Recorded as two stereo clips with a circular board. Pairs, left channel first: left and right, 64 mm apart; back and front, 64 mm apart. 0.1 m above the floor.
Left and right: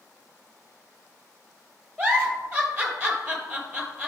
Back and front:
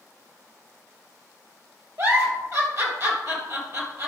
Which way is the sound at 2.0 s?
20° right.